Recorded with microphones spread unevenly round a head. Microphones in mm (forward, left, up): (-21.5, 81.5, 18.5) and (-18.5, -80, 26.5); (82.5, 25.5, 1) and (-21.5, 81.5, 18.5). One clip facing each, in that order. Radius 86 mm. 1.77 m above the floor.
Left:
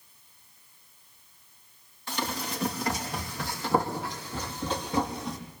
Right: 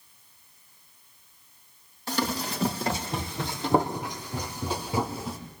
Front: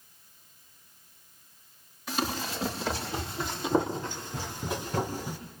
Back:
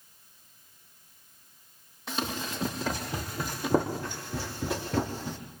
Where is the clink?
No clink in this recording.